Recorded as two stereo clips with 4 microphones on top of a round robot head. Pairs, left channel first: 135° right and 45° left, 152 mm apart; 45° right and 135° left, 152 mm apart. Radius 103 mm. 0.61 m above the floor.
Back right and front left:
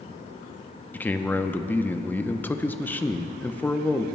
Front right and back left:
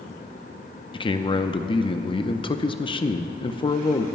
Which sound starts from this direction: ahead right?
A man speaking, at 0.9 s.